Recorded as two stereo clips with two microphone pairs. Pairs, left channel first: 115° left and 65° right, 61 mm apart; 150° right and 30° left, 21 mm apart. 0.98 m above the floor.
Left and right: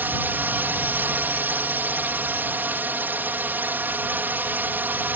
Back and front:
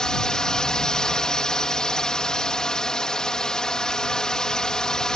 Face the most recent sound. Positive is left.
turn(degrees=-105)